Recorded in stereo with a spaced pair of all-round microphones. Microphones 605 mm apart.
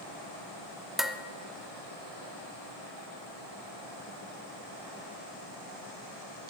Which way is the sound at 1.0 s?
Centre (ahead or behind).